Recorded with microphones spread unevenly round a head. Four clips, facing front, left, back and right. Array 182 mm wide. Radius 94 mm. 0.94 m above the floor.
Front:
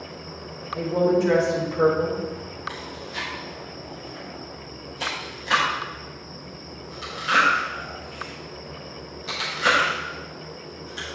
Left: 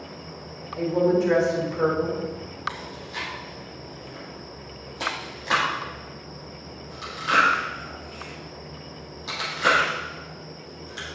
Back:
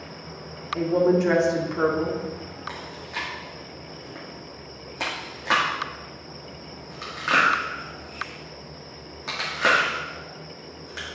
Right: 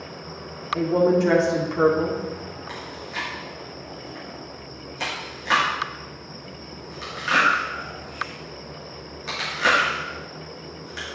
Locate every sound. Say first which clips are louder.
0.8 s a woman speaking: right 2 dB, back 1 dB; 110° right, 2 m
2.7 s chewing: right 2 dB, back 1 dB; 170° left, 2 m